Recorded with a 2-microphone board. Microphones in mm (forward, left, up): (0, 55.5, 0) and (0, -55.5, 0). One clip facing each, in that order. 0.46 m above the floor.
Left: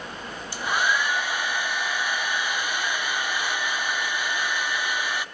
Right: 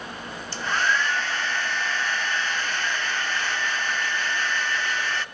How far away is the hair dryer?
About 0.9 m.